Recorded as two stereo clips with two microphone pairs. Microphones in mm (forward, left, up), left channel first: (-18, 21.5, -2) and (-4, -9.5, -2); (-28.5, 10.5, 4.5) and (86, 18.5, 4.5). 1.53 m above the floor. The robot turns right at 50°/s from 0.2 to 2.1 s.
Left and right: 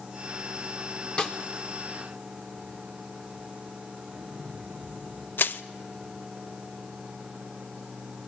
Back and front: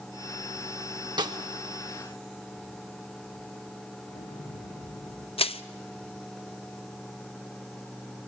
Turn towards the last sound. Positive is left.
turn(degrees=140)